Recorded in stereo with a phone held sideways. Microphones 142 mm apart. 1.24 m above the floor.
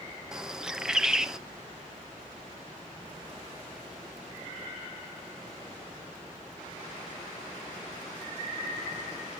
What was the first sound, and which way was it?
A bird, 5° right (ahead or behind).